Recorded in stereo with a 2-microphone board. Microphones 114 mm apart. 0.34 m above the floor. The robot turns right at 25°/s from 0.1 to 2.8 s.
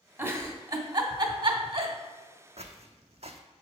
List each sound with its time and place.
0.2 s a giggle: 20° right (ahead or behind), 1.2 m; by 1.9 s 60° right (ahead or behind), 1.2 m
2.6 s footsteps: 75° right (ahead or behind), 1.0 m; by 3.4 s 70° right (ahead or behind), 1.0 m